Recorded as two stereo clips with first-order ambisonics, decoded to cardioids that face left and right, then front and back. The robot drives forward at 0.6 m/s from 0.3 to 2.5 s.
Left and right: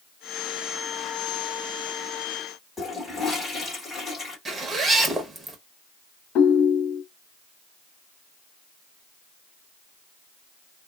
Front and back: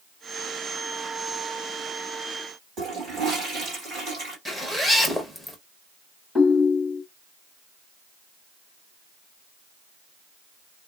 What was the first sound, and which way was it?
A toilet flushing, 165° left.